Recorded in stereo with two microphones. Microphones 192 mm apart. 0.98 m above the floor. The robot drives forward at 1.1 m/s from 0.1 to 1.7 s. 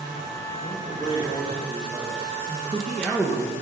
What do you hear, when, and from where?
0.6 s a man speaking: 35° left (ahead or behind), 4.5 m; by 2.4 s 25° left (ahead or behind), 5.5 m
2.5 s a man speaking: 5° left (ahead or behind), 1.1 m